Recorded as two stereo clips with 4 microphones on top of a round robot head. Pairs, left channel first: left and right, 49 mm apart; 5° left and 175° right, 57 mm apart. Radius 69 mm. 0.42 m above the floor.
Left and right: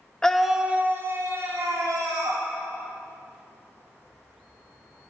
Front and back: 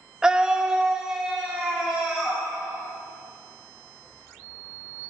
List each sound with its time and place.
0.2 s a scream: 135° left, 0.8 m; by 2.5 s 90° right, 2 m